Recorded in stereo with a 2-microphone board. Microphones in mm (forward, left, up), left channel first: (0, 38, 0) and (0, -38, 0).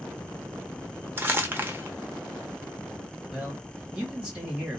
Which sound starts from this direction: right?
Crumpling, at 1.2 s.